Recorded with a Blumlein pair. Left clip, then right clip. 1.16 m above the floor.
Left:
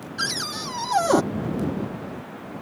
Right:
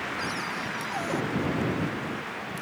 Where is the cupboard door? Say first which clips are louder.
Left 3 dB; 55° left.